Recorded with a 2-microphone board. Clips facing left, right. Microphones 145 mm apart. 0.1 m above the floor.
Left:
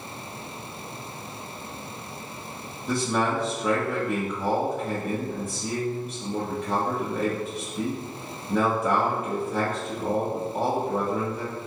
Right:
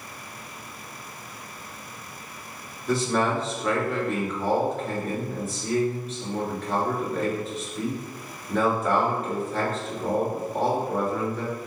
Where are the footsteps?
I don't hear footsteps.